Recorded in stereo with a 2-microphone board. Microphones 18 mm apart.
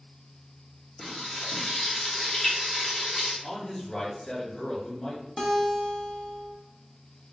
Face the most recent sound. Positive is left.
turn(degrees=20)  # may be behind; listen again after turning